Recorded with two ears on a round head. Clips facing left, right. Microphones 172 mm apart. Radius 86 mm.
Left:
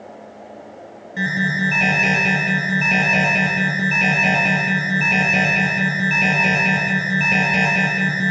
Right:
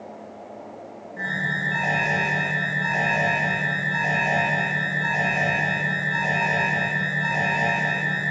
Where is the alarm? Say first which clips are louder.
Left 9 dB; 80° left, 9 m.